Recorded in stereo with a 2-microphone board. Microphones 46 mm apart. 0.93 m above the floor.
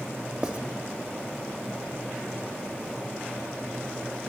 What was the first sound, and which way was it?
Writing, 25° right (ahead or behind).